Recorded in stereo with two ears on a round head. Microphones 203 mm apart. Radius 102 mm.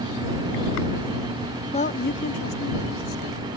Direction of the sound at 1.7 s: 25° left (ahead or behind).